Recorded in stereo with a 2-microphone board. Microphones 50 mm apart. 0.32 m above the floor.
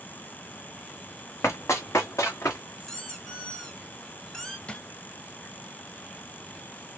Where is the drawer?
20° left (ahead or behind), 0.6 m.